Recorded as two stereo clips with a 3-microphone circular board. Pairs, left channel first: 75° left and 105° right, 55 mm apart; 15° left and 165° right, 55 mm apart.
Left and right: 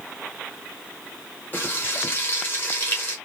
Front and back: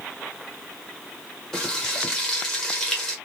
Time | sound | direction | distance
1.5 | frying | 90° left | 1.2 m